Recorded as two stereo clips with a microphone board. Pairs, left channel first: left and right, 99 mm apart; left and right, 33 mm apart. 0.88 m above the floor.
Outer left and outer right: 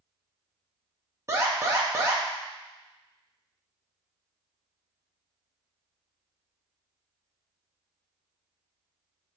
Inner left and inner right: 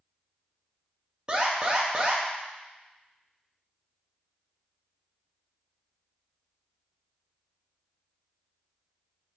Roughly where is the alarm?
Right.